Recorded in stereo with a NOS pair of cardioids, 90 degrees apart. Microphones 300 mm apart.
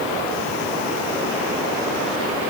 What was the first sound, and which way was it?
Only background noise.